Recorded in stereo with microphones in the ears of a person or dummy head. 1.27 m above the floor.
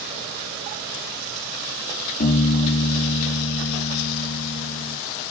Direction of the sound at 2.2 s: 50° left (ahead or behind).